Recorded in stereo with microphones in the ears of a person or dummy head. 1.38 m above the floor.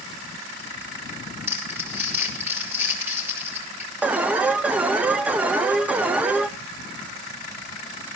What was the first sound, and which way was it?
Crumpling, 20° right (ahead or behind).